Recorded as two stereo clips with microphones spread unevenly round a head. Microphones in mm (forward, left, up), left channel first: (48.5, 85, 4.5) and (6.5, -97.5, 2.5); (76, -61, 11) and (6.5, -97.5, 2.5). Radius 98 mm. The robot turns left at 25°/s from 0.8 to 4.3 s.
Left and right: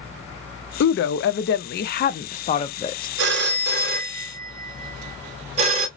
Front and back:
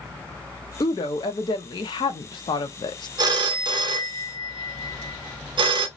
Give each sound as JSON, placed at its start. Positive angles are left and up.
{"t": 0.8, "sound": "a woman speaking", "azimuth_deg": 70, "distance_m": 0.5}
{"t": 3.2, "sound": "a phone ringing", "azimuth_deg": -130, "distance_m": 0.6}